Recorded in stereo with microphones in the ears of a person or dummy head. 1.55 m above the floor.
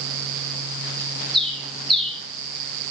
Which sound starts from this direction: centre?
A bird, at 1.3 s.